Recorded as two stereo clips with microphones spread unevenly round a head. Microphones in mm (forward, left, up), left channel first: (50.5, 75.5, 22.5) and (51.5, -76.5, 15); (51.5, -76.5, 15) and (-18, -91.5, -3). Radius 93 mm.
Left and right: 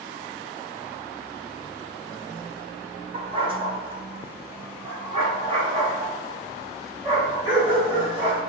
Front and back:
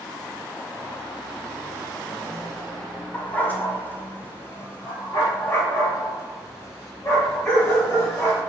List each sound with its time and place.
3.1 s a dog barking: 40° right, 1.2 m; by 8.4 s 35° right, 5 m